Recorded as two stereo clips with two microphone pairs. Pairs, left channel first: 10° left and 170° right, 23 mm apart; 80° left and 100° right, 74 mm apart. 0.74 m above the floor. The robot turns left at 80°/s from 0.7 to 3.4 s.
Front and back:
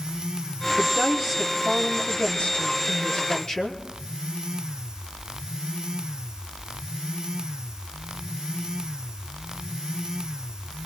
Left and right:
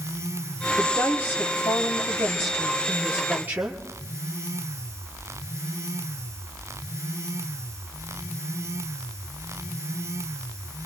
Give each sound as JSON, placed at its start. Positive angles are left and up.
{"t": 0.8, "sound": "a woman speaking", "azimuth_deg": 175, "distance_m": 1.2}